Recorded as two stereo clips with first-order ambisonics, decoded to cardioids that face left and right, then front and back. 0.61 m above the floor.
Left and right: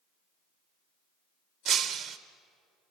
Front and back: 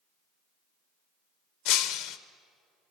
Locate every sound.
1.6 s breaking glass: 25° right, 1.1 m